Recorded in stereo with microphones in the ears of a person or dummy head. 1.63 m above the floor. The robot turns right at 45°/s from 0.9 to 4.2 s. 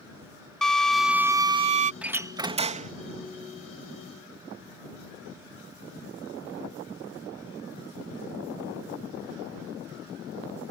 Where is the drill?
170° left; by 1.9 s 145° right.